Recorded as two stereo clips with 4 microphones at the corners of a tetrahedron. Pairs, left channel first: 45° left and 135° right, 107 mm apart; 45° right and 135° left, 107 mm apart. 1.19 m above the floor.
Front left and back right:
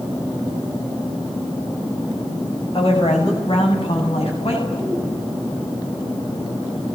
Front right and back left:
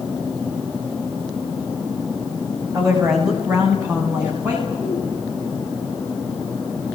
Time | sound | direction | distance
2.7 | a woman speaking | 85° left | 6 m